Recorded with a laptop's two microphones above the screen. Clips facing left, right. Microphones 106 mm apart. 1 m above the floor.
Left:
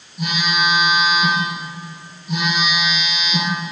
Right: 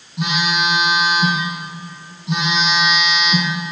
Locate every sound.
0.2 s a phone buzzing: 80° right, 4.5 m